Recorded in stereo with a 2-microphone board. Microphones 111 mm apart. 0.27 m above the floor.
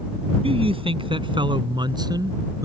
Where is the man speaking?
60° right (ahead or behind); by 2.6 s 35° right (ahead or behind).